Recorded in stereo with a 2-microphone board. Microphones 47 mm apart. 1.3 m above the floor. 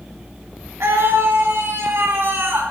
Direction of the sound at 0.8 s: 80° right.